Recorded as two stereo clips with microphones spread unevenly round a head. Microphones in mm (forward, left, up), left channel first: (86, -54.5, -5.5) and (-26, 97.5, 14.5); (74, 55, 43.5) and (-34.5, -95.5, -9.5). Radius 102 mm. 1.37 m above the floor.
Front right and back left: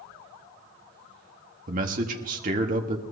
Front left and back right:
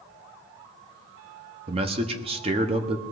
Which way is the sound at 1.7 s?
Straight behind.